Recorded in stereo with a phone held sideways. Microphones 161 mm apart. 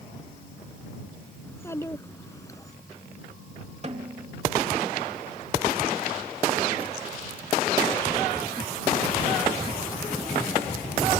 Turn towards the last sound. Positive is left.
turn(degrees=-45)  # may be behind; listen again after turning